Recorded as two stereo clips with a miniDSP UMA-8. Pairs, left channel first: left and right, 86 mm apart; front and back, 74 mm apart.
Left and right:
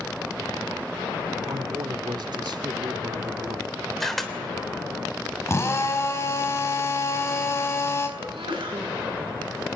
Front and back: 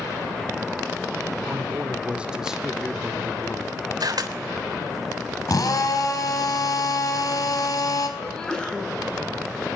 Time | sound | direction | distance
1.4 | a man speaking | 120° right | 2.5 m
4.0 | a camera shutter | 175° left | 3 m
5.5 | a drill | 35° left | 4.5 m
8.2 | a sneeze | 80° right | 9 m